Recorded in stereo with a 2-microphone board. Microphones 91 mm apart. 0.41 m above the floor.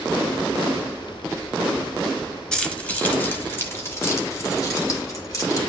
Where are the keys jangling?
10° left (ahead or behind), 1.4 m; by 5.6 s 40° left (ahead or behind), 3 m.